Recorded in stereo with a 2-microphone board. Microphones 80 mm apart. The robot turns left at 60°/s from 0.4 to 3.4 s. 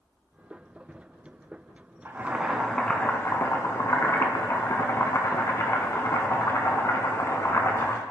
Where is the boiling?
145° right, 1.1 m; by 8.0 s 135° left, 1.1 m.